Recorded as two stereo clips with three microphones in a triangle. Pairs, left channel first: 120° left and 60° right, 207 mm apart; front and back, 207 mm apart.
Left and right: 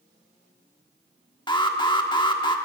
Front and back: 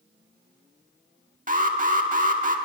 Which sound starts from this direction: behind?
An alarm, at 1.5 s.